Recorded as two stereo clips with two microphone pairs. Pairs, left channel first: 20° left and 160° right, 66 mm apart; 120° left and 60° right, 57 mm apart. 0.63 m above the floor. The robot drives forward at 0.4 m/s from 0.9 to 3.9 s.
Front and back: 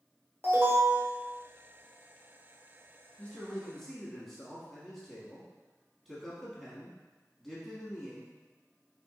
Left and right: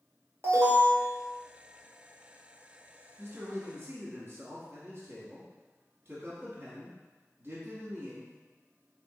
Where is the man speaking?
45° right, 0.9 m; by 8.3 s 70° right, 0.8 m.